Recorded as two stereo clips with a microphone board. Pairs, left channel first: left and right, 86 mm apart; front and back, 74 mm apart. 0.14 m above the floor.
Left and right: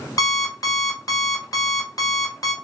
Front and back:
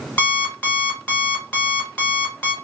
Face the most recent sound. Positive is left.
turn(degrees=65)